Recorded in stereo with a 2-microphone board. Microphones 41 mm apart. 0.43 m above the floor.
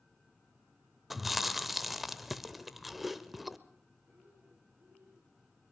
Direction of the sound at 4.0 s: 70° right (ahead or behind).